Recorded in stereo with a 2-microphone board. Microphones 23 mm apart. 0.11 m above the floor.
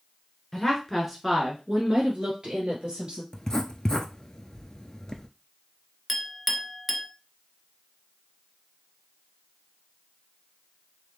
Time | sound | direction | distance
0.5 | a woman speaking | 15° left (ahead or behind) | 1.4 m
3.3 | writing | 30° left (ahead or behind) | 0.5 m
6.1 | a clink | 5° right (ahead or behind) | 0.7 m